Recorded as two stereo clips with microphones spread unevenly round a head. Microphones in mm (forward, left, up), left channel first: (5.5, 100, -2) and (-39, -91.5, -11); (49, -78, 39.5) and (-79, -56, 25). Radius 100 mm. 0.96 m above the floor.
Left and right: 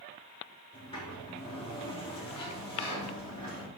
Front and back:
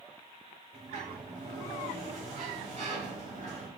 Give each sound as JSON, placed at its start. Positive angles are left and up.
{"t": 0.7, "sound": "a sliding door", "azimuth_deg": 140, "distance_m": 2.5}